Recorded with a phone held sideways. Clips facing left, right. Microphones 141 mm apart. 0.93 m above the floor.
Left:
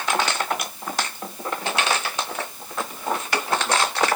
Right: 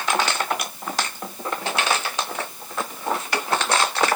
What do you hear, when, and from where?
Only background noise.